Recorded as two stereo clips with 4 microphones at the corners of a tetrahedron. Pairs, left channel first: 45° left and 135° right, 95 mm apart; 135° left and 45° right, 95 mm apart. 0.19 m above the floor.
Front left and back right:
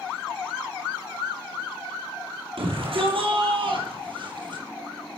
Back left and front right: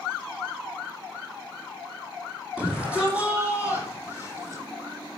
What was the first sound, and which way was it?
A shout, 125° right.